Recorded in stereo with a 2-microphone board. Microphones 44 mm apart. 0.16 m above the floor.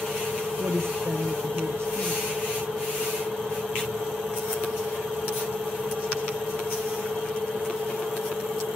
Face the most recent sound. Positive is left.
turn(degrees=-70)  # may be behind; listen again after turning